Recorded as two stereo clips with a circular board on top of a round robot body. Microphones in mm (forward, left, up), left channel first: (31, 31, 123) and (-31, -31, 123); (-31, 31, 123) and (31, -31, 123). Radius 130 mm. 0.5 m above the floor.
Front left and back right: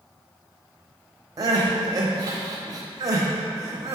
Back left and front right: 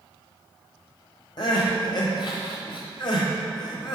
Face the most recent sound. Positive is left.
turn(degrees=175)